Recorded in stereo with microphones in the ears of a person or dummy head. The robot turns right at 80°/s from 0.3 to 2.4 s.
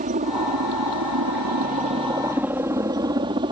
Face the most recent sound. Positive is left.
turn(degrees=-30)  # may be behind; listen again after turning